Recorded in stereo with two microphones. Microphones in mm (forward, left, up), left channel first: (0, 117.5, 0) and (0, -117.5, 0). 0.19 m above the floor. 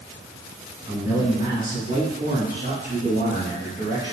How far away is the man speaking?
About 1.6 m.